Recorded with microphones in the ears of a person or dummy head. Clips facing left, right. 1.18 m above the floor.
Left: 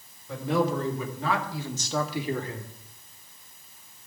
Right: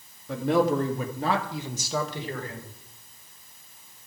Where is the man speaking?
60° right (ahead or behind), 2.5 m; by 2.7 s 25° left (ahead or behind), 1.5 m.